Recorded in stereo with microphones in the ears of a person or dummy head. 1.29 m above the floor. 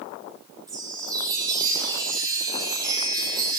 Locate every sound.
0.7 s a chime: 20° right (ahead or behind), 1.7 m